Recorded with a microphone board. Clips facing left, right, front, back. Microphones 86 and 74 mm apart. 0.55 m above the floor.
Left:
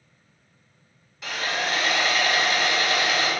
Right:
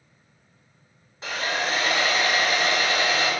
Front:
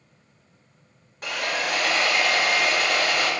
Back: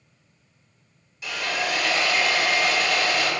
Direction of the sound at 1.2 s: 35° right.